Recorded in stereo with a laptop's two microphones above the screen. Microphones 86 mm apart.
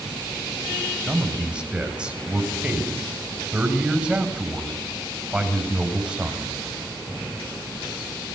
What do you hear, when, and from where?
1.1 s a man speaking: 10° right (ahead or behind), 7 m